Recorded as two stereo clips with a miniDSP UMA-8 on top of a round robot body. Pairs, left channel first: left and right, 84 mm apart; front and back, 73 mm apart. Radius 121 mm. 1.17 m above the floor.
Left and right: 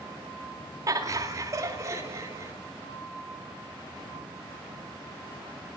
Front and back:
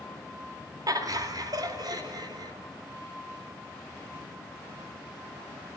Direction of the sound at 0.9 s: 140° right.